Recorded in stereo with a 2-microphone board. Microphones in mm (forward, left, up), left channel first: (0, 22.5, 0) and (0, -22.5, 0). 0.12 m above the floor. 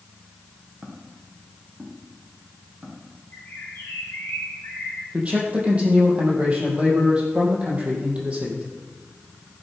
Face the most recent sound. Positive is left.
turn(degrees=-25)  # may be behind; listen again after turning